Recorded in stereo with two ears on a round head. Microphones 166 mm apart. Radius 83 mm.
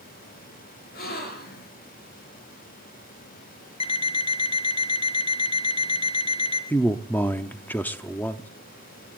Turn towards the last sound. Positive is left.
turn(degrees=10)  # may be behind; listen again after turning